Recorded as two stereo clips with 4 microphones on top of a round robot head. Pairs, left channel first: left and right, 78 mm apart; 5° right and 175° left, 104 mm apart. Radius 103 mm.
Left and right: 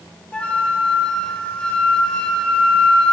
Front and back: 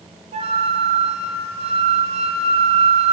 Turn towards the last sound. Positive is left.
turn(degrees=165)